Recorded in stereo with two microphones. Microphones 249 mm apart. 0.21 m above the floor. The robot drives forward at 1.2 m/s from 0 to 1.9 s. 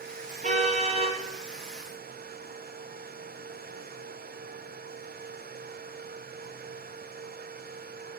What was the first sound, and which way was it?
A car horn, 30° right (ahead or behind).